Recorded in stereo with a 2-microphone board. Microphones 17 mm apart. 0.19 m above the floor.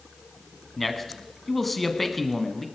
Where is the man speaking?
10° left (ahead or behind), 1.5 m.